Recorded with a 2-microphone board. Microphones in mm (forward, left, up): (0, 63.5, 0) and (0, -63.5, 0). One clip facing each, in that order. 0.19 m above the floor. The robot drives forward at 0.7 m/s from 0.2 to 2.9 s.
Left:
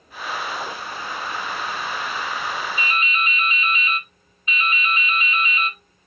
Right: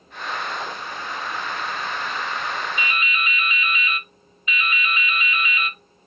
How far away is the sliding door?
I don't hear a sliding door.